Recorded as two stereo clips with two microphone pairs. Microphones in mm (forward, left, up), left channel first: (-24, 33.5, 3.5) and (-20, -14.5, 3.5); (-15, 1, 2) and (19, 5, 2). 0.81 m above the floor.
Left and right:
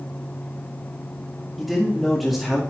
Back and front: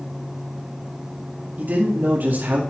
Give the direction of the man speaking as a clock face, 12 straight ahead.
12 o'clock.